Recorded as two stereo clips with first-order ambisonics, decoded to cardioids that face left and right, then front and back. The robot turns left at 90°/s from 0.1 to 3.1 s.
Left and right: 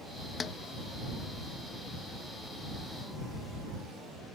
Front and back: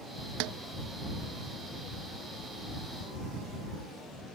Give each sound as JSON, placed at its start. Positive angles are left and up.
{"t": 0.4, "sound": "a snare drum", "azimuth_deg": 160}